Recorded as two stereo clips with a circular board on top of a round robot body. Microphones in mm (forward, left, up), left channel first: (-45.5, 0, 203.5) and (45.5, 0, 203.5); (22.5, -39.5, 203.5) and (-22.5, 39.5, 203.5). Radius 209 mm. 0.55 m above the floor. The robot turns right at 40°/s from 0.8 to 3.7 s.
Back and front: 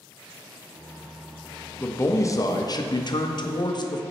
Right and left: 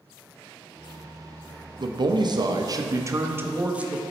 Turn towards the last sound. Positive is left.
turn(degrees=-170)